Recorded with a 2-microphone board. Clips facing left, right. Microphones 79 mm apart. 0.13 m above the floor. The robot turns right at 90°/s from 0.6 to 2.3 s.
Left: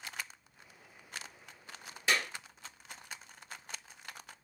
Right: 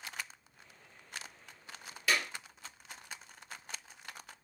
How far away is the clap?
About 2.5 m.